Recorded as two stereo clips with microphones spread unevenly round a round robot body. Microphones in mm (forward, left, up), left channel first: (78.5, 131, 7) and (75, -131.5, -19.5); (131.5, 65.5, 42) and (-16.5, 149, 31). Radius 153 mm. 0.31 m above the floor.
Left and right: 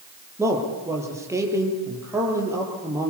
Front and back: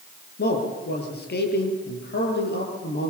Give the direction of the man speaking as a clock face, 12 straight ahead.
12 o'clock.